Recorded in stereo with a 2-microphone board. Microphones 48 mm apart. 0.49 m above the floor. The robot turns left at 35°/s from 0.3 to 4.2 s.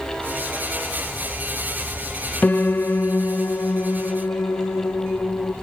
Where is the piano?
140° left, 0.6 m; by 5.5 s 80° left, 0.6 m.